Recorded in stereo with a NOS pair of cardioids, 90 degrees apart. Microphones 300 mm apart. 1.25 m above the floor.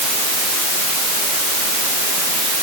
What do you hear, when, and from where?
Only background noise.